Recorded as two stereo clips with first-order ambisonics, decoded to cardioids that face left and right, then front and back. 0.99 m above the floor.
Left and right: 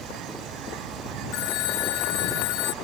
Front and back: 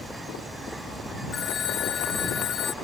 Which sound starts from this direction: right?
An insect, at 0.0 s.